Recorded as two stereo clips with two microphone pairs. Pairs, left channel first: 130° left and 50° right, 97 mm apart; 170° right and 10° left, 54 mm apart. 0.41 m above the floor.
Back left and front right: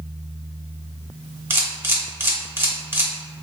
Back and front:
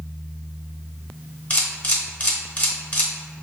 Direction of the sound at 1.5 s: 110° right.